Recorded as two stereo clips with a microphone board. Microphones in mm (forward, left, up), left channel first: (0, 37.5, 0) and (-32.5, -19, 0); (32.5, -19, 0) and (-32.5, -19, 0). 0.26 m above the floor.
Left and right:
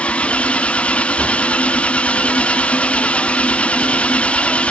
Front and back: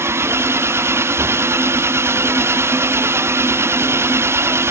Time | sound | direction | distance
0.0 | an engine running | 135° left | ?